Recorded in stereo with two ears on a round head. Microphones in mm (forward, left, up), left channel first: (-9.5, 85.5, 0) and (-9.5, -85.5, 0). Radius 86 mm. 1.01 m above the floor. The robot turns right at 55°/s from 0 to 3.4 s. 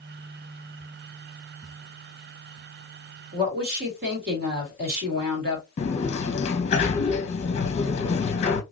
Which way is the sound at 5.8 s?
35° left (ahead or behind).